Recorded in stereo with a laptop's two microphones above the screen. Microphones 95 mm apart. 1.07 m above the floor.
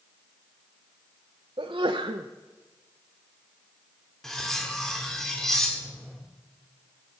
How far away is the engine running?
I don't hear an engine running.